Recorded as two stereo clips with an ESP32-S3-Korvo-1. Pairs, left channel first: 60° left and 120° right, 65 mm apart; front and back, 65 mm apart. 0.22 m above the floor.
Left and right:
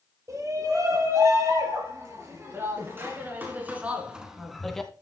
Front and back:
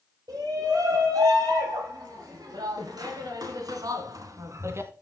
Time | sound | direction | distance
0.3 | a shout | 160° right | 5.5 m